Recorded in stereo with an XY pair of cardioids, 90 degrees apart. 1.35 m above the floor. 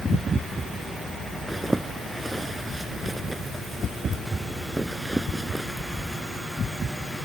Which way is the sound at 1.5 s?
10° right.